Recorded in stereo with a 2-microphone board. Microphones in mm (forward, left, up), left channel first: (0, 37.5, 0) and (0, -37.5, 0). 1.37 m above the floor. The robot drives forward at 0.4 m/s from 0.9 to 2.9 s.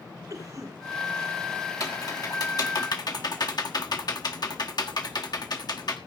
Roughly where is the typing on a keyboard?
Left.